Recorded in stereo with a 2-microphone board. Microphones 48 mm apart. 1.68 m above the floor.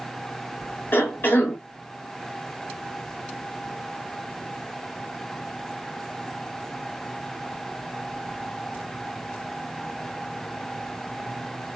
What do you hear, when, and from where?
0.9 s a cough: 40° left (ahead or behind), 1.5 m